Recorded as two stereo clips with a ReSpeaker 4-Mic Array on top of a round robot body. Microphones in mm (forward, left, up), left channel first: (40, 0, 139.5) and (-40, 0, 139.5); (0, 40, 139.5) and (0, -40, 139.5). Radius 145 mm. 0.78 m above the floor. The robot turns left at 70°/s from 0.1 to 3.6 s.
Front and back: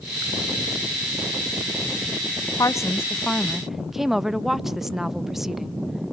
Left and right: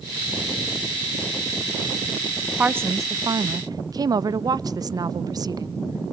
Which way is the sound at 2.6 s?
25° right.